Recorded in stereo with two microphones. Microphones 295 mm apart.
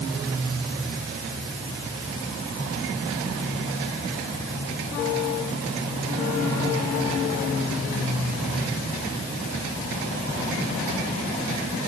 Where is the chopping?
I don't hear chopping.